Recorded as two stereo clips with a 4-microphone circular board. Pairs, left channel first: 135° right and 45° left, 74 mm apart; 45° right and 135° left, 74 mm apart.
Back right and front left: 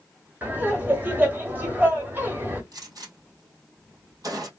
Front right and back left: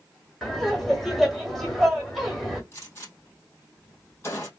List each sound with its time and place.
0.4 s laughter: 40° left, 1.6 m
2.7 s a gunshot: 10° left, 2.5 m